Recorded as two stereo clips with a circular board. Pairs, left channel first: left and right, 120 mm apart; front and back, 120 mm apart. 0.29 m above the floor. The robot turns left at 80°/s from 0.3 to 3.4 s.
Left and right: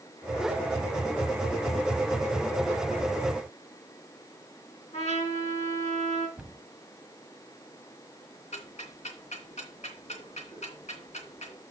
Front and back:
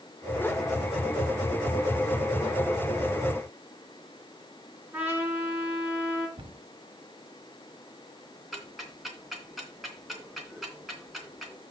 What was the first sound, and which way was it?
A trumpet, 105° left.